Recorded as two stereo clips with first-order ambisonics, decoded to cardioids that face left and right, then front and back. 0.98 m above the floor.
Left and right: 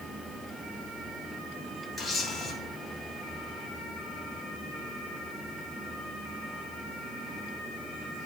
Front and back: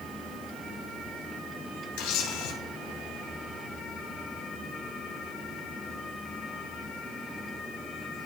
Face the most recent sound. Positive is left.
turn(degrees=10)